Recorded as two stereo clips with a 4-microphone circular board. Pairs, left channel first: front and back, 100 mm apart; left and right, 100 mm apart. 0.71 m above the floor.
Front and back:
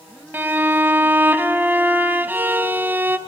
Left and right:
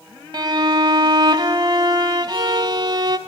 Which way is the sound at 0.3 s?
115° right.